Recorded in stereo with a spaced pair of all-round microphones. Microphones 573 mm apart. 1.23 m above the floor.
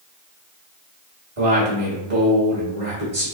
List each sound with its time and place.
1.4 s a man speaking: 60° right (ahead or behind), 1.9 m